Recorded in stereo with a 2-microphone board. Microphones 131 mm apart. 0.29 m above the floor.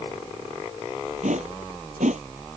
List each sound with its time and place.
1.2 s a whoosh: 70° right (ahead or behind)